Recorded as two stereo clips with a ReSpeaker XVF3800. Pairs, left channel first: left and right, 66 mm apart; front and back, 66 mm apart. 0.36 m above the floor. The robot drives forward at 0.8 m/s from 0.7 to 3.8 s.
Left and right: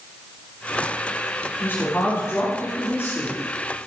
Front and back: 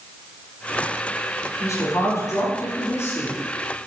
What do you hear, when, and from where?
1.6 s a woman speaking: 35° left, 6.5 m; by 3.4 s 45° left, 5.5 m